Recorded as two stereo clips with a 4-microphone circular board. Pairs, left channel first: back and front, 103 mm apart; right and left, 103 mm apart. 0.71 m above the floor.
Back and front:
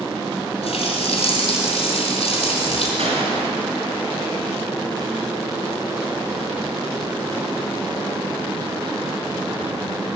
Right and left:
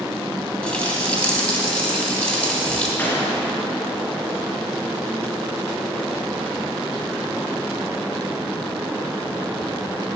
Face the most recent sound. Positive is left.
turn(degrees=-15)